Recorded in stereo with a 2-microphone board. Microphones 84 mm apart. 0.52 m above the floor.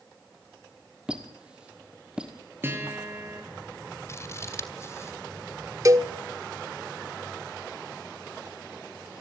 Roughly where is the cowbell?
Right.